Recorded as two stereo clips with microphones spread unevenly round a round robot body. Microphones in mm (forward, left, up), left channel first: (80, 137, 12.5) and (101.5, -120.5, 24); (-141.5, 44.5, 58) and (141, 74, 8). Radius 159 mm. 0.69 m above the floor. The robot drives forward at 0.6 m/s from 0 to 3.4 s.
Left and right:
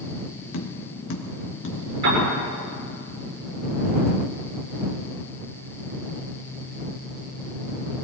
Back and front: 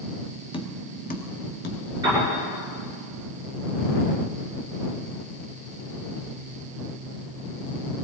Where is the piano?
75° right, 7.5 m.